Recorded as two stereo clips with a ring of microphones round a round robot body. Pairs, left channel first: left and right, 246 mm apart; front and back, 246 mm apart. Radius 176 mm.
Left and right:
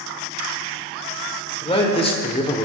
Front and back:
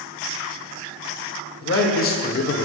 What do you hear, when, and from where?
1.6 s a man speaking: 25° left, 2 m